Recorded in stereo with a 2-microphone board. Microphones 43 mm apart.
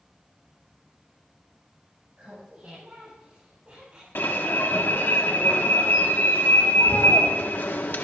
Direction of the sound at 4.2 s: 55° left (ahead or behind).